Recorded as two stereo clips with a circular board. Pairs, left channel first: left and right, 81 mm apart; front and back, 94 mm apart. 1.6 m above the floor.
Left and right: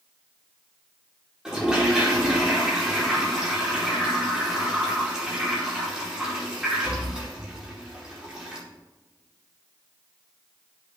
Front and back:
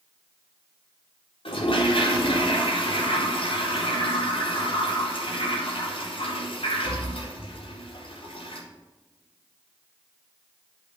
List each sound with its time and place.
1.4 s a toilet flushing: 10° right, 4 m